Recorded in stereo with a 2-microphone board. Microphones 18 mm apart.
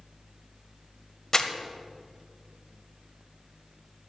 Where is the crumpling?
30° left (ahead or behind), 0.7 m.